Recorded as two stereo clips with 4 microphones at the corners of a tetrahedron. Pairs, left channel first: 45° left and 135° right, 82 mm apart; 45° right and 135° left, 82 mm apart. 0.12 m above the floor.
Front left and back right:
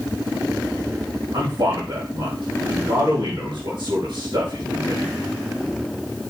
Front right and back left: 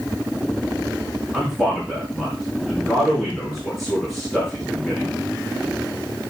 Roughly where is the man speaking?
Behind right.